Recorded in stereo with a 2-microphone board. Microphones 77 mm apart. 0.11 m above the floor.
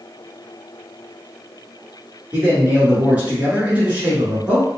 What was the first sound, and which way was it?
A man speaking, 20° right (ahead or behind).